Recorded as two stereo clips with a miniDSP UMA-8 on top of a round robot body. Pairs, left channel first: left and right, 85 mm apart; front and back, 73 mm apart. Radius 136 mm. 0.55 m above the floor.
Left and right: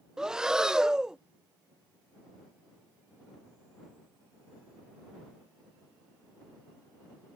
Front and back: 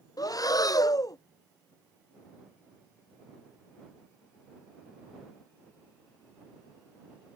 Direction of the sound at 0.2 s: 10° right.